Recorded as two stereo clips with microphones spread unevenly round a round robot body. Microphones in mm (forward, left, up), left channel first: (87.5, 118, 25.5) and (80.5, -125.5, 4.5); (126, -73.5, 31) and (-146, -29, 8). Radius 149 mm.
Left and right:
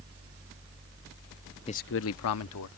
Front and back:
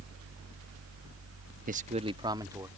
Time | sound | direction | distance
1.7 | a man speaking | 150° left | ?